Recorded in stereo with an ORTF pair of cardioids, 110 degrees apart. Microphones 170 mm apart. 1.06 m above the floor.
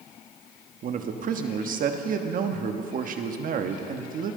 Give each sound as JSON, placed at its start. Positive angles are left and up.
{"t": 0.8, "sound": "a man speaking", "azimuth_deg": -50, "distance_m": 1.4}